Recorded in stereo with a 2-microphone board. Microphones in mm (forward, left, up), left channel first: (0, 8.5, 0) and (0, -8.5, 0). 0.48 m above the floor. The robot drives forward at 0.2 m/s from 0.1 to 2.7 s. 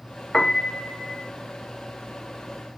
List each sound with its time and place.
0.3 s a piano: 30° left (ahead or behind), 0.7 m; by 1.3 s 35° left (ahead or behind), 0.6 m